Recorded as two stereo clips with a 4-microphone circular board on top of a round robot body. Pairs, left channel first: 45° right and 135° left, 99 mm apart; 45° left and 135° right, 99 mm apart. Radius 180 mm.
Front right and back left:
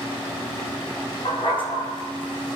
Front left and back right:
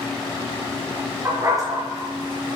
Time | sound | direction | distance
1.2 | a dog barking | 75° right | 3 m